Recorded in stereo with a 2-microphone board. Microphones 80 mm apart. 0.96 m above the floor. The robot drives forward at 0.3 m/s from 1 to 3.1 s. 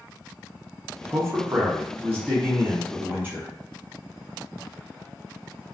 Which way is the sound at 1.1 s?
35° right (ahead or behind).